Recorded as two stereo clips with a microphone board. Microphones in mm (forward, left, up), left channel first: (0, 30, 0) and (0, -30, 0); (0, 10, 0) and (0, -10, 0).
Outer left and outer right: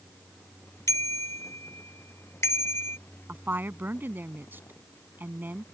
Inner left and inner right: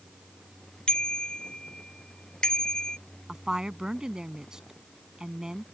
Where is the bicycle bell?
55° left (ahead or behind); by 3.0 s 45° left (ahead or behind).